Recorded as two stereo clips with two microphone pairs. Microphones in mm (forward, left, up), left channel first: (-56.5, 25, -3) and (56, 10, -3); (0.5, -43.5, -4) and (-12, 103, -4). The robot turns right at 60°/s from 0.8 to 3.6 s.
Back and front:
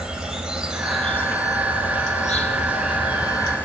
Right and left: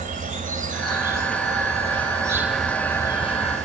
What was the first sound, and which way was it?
An insect, 75° left.